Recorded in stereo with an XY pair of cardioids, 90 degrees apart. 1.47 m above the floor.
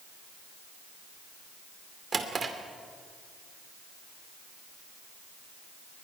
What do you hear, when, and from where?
2.1 s a drawer: 40° right, 2.5 m